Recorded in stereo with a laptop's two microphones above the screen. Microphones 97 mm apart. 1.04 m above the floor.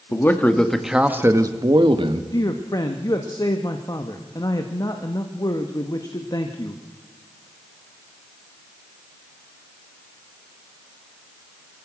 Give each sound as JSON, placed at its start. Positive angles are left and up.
{"t": 0.1, "sound": "a man speaking", "side_deg": 25, "distance_m": 1.6}
{"t": 2.3, "sound": "a man speaking", "side_deg": 40, "distance_m": 1.6}